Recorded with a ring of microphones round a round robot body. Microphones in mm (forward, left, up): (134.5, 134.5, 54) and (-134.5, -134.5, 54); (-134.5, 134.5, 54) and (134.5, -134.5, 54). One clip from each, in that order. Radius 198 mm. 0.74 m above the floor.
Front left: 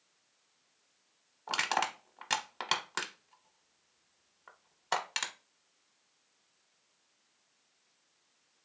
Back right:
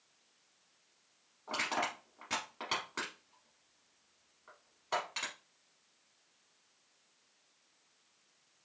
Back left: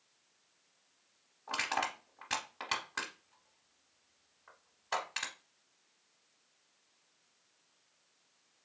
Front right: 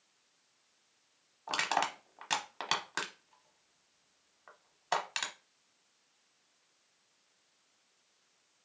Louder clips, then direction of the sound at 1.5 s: Front left 4 dB, front right 3 dB; 10° left.